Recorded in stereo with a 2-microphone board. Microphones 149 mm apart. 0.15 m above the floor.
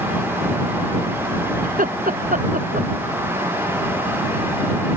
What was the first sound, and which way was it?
Laughter, 65° right (ahead or behind).